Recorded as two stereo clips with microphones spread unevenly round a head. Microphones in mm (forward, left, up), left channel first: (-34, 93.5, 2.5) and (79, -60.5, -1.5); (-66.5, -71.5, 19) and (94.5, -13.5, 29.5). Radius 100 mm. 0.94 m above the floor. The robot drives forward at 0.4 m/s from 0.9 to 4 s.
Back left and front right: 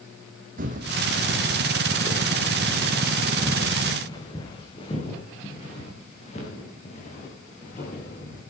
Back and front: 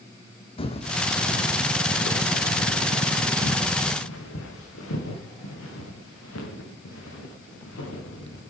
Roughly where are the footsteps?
Right.